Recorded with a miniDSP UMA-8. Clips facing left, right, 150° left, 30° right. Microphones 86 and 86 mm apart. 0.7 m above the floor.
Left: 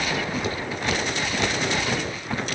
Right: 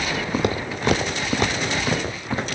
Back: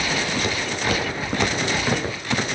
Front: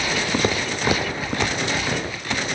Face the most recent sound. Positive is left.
turn(degrees=-145)